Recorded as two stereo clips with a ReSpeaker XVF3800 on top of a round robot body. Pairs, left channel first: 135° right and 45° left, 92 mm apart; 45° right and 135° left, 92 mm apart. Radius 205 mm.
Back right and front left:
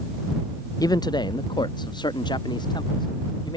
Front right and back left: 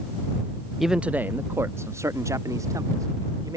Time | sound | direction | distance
0.8 | a man speaking | 140° right | ?